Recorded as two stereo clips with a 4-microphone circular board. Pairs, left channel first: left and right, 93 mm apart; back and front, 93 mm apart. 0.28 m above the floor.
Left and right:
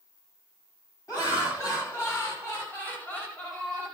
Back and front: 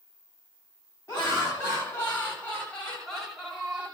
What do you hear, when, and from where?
1.1 s laughter: 130° left, 2 m; by 3.9 s 30° left, 1.3 m